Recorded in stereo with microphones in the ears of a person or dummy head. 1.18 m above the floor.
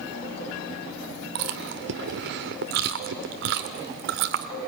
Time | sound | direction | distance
1.4 | chewing | 55° right (ahead or behind) | 1.3 m